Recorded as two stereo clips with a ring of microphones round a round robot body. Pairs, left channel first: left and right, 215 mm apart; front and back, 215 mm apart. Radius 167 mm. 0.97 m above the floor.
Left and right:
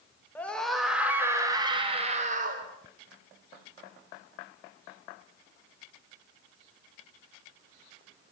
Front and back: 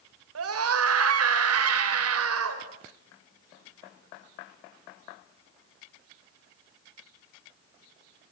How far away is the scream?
About 4 m.